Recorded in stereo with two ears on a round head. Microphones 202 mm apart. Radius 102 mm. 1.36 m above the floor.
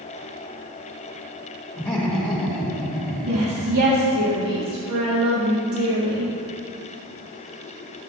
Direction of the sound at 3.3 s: 75° right (ahead or behind).